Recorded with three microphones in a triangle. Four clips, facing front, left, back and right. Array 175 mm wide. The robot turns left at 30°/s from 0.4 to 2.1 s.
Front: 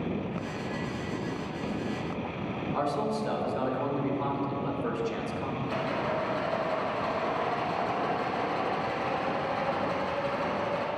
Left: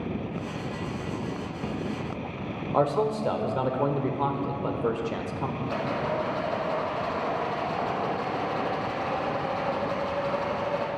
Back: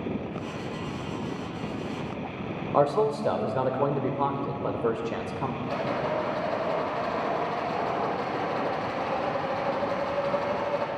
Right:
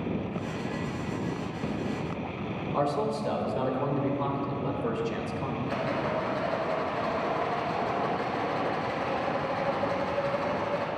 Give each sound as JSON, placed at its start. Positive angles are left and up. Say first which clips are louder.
{"t": 2.7, "sound": "a man speaking", "louder": "left 4 dB, back 8 dB", "azimuth_deg": 155, "distance_m": 1.3}
{"t": 5.6, "sound": "a rattle", "louder": "left 1 dB, back 2 dB", "azimuth_deg": 150, "distance_m": 5.0}